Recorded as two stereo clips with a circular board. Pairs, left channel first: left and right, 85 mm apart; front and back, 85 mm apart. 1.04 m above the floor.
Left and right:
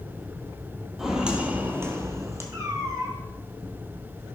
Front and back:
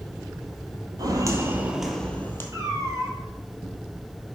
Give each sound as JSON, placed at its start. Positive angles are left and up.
{"t": 1.0, "sound": "footsteps", "azimuth_deg": -175, "distance_m": 1.5}
{"t": 2.5, "sound": "a cat meowing", "azimuth_deg": -135, "distance_m": 3.0}